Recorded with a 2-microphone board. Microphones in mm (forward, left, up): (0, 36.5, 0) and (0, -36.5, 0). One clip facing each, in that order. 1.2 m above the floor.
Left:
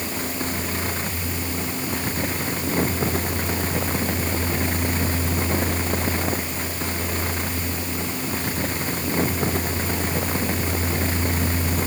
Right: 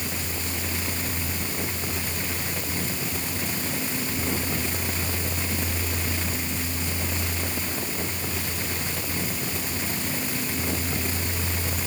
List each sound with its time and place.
Only background noise.